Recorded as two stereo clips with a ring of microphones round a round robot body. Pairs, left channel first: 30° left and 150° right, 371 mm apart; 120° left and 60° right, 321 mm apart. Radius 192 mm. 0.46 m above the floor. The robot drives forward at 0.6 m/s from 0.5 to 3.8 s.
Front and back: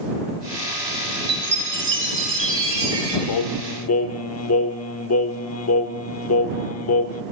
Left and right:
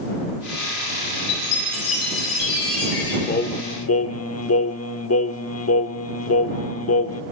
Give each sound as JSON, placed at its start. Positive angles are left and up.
{"t": 1.3, "sound": "a chime", "azimuth_deg": 150, "distance_m": 4.0}
{"t": 3.3, "sound": "singing", "azimuth_deg": 55, "distance_m": 0.9}